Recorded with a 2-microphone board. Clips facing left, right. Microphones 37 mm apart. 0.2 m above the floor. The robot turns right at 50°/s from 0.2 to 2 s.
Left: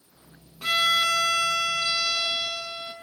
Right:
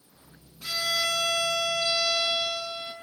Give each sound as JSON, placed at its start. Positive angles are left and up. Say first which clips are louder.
{"t": 0.6, "sound": "a violin", "louder": "left 6 dB", "azimuth_deg": 75, "distance_m": 1.6}